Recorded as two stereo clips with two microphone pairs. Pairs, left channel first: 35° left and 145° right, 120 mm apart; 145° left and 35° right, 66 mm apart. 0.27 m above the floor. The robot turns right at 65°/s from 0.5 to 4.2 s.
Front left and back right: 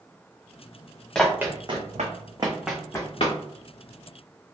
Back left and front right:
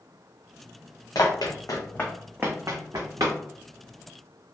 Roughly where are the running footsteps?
Behind left.